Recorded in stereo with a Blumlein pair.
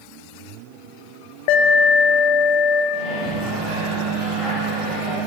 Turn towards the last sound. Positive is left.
turn(degrees=10)